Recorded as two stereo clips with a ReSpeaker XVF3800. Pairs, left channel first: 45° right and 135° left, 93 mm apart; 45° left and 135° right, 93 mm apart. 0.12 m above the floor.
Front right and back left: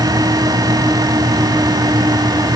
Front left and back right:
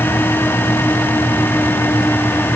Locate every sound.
Only background noise.